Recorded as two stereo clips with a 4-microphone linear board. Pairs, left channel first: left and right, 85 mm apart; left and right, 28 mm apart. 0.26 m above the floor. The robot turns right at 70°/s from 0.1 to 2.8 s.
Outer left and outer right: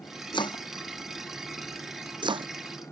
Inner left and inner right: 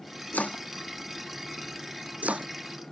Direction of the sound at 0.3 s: 70° left (ahead or behind).